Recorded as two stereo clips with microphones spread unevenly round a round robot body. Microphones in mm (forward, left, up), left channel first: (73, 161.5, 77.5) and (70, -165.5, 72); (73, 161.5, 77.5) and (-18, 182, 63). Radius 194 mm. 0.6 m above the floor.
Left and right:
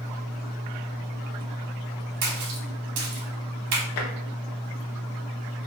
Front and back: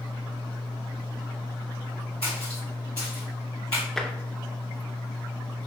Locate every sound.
2.2 s a splash: 65° right, 0.8 m
4.0 s tapping: 75° left, 0.7 m